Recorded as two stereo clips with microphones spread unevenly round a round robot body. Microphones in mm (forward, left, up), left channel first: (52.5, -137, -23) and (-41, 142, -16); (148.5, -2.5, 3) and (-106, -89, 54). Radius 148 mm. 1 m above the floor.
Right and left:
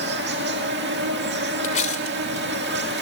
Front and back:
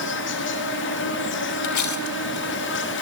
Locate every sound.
0.0 s an insect: 55° left, 2.5 m
1.6 s cutlery clinking: 5° right, 1.9 m